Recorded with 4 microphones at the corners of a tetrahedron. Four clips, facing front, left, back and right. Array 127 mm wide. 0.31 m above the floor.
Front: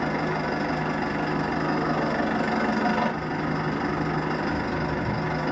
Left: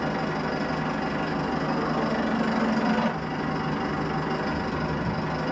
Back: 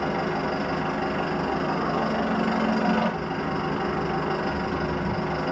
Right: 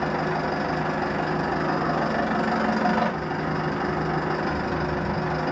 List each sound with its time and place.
0.0 s an engine running: 100° right, 0.8 m